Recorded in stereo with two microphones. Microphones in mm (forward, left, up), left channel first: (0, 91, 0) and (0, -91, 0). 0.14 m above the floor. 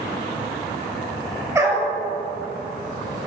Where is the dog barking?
15° right (ahead or behind), 0.8 m.